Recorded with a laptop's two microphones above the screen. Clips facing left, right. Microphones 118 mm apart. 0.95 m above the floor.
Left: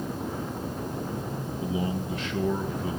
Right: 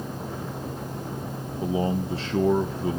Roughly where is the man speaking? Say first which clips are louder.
Right 5 dB; right.